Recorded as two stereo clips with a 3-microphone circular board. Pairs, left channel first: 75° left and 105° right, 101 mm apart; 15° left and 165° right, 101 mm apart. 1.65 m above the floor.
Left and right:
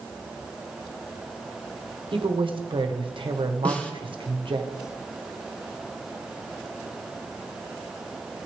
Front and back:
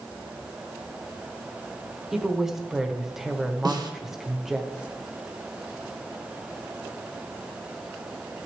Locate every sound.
2.1 s a woman speaking: 80° right, 1.1 m
3.6 s a snare drum: 150° left, 1.1 m